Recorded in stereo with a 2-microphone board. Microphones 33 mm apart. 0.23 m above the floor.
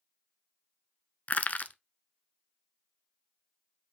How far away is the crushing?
About 0.6 m.